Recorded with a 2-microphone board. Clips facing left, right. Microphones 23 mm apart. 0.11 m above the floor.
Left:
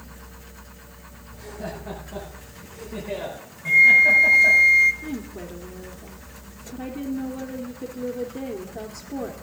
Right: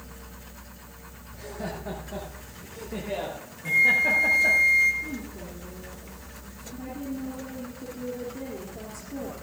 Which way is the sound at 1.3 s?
55° right (ahead or behind).